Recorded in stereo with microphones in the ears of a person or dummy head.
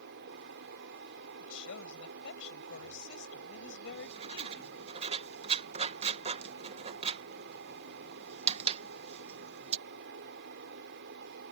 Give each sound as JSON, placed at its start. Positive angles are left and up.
{"t": 0.0, "sound": "a fan", "side_deg": -65}
{"t": 1.4, "sound": "a woman speaking", "side_deg": 70}
{"t": 3.9, "sound": "writing", "side_deg": -35}